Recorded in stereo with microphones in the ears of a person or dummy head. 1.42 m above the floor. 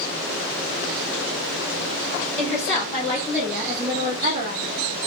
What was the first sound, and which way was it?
A woman speaking, 15° left (ahead or behind).